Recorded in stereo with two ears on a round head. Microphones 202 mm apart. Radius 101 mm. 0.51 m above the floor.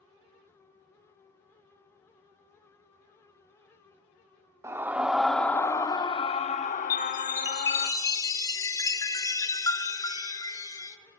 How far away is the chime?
About 1.1 m.